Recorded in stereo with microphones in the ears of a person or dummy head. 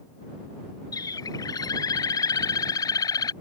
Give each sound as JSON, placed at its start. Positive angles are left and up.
{"t": 0.9, "sound": "a bird", "side_deg": 20}